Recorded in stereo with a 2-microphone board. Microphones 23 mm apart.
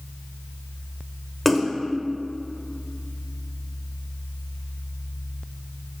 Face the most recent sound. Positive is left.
turn(degrees=10)  # may be behind; listen again after turning